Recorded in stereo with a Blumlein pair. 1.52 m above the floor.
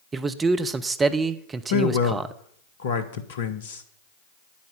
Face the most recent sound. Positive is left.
turn(degrees=60)